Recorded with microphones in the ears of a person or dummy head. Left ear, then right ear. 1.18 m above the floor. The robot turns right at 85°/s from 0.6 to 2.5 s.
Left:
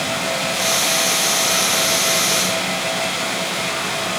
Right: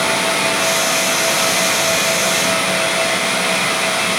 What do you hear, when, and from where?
Only background noise.